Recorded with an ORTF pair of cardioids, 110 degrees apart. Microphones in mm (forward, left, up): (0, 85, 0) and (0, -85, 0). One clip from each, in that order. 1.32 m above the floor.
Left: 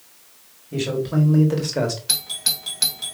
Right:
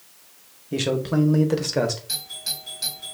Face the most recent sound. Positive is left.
turn(degrees=60)